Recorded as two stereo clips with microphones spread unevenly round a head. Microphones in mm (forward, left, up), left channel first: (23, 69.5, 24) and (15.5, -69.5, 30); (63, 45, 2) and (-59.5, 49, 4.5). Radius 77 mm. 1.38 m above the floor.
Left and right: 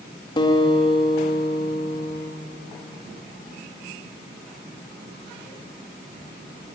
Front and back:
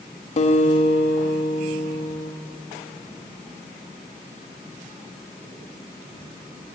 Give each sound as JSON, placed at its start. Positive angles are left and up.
{"t": 0.4, "sound": "a guitar", "azimuth_deg": 30, "distance_m": 2.5}